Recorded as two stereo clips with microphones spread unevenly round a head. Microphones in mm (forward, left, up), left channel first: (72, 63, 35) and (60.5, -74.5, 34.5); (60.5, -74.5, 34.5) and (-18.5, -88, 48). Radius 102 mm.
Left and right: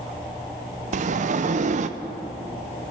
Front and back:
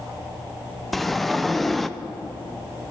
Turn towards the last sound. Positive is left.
turn(degrees=-85)